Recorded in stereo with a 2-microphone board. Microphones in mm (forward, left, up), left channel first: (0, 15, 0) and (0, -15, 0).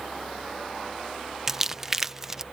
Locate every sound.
1.5 s crumpling: 15° right (ahead or behind)